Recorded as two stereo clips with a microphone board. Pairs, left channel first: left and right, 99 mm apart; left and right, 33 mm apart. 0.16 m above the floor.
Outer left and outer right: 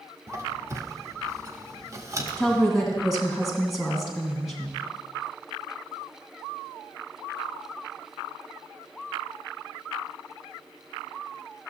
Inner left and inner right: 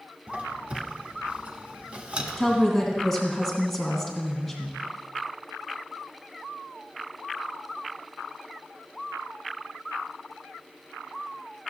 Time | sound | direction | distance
0.3 | a squeak | 30° right (ahead or behind) | 0.7 m
2.4 | a woman speaking | centre (ahead or behind) | 1.5 m